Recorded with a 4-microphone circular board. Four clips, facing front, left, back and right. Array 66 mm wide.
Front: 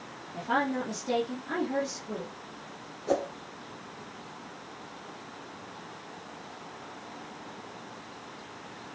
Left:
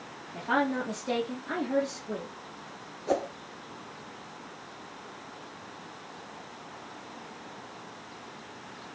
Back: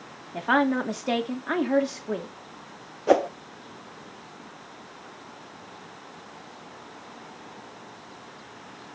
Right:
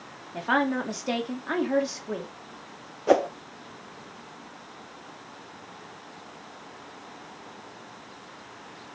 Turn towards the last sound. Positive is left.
turn(degrees=-140)